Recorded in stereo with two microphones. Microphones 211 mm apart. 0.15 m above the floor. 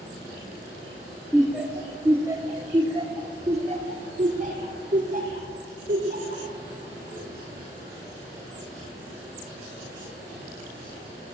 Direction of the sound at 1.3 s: Centre (ahead or behind).